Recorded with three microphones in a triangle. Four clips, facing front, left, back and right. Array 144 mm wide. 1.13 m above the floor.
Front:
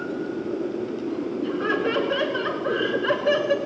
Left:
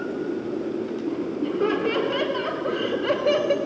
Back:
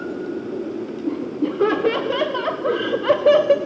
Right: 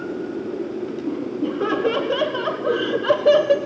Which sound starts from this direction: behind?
Laughter, at 1.1 s.